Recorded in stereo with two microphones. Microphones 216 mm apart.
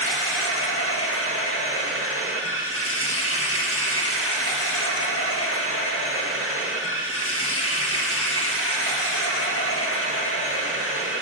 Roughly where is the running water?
Left.